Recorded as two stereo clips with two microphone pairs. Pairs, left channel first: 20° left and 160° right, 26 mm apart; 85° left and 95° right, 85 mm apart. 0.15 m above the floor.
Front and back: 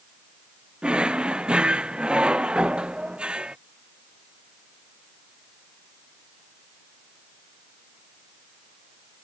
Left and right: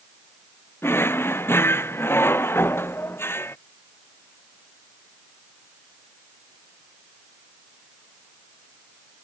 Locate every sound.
0.8 s a drawer: 150° left